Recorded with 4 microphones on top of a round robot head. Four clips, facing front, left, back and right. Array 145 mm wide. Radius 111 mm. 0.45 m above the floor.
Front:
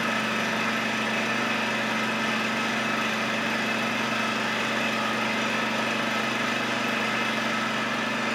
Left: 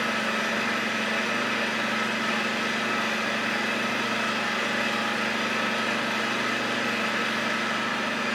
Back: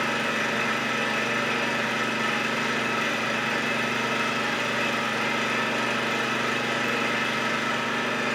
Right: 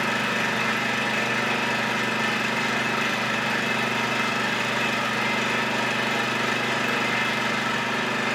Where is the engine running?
90° right, 3 m.